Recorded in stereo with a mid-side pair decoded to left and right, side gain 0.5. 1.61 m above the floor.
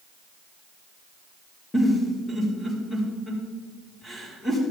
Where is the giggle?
20° left, 4.5 m.